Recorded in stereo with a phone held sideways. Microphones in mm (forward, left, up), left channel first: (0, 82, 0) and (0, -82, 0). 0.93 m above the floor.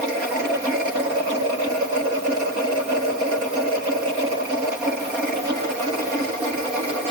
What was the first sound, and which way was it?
Only background noise.